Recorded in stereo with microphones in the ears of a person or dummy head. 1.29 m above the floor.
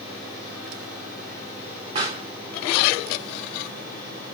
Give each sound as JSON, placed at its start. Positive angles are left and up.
{"t": 1.9, "sound": "a pop", "side_deg": -35, "distance_m": 1.8}